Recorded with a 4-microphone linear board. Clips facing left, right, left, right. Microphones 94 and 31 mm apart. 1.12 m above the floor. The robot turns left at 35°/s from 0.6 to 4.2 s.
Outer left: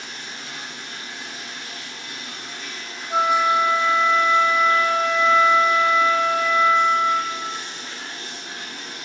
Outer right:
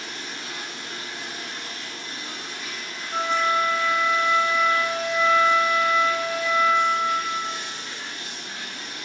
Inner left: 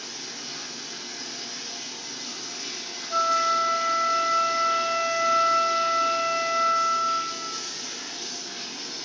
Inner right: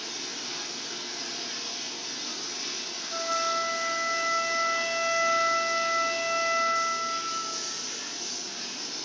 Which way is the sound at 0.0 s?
100° right.